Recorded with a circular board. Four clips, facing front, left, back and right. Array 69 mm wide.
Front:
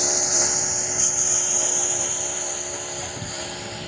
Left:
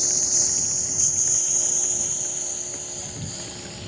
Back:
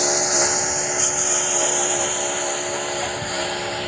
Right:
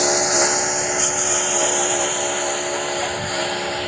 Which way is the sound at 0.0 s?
110° right.